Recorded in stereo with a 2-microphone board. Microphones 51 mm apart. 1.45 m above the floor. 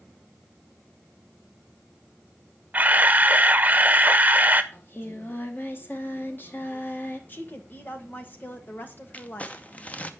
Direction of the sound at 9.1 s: 30° left (ahead or behind).